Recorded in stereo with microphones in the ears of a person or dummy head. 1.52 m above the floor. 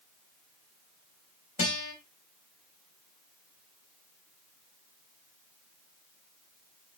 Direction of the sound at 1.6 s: 45° left (ahead or behind).